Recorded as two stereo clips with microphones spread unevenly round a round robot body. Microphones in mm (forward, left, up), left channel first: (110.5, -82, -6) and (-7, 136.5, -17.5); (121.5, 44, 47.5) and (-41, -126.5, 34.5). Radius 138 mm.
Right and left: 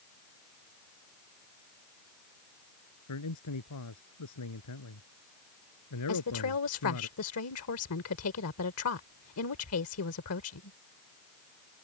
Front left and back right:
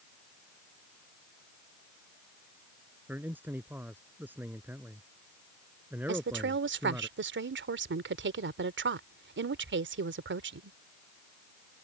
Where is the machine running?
No machine running in this recording.